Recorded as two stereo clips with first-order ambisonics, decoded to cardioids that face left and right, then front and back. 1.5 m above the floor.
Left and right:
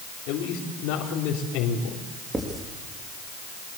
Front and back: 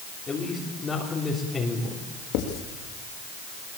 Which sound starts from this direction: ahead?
Writing, at 2.3 s.